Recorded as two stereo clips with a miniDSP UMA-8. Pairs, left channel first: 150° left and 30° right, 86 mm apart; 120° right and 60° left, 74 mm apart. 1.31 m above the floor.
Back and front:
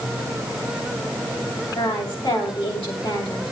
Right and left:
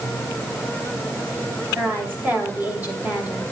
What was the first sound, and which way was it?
A woman speaking, 130° left.